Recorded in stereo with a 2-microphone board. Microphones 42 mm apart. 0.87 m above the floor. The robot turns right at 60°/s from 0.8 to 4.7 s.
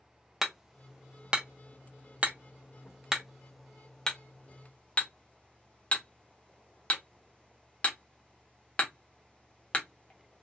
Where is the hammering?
5° right (ahead or behind), 0.7 m; by 10.4 s 30° left (ahead or behind), 0.7 m.